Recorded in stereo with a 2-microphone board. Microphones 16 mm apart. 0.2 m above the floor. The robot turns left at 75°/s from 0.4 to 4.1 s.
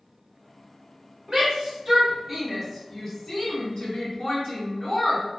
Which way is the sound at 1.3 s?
45° right (ahead or behind).